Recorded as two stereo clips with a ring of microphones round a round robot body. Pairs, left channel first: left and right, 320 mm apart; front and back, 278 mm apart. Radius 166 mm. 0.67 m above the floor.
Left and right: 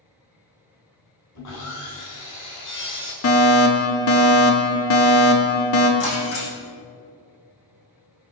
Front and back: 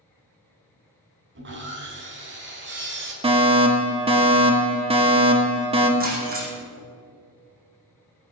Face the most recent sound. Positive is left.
turn(degrees=120)